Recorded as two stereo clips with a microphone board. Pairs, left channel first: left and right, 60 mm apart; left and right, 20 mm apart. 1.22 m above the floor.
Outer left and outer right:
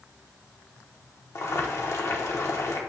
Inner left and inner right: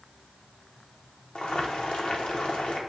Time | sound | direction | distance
1.4 | boiling | 55° left (ahead or behind) | 1.1 m